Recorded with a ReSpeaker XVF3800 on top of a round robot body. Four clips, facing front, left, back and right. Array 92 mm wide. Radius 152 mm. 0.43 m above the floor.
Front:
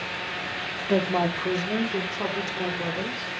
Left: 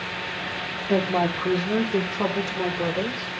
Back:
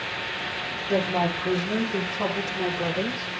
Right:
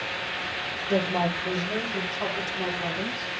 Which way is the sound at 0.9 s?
45° left.